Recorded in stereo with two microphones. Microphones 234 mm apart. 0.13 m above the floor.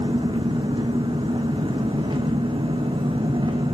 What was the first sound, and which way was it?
An engine running, 20° right (ahead or behind).